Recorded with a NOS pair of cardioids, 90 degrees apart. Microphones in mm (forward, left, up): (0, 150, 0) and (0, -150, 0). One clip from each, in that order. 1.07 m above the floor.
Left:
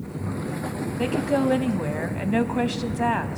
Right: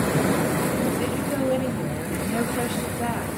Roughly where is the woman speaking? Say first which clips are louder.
Left 2 dB; ahead left.